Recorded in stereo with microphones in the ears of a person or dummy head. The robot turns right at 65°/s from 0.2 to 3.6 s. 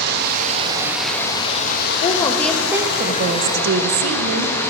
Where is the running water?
55° right, 0.9 m; by 4.7 s 165° left, 0.9 m.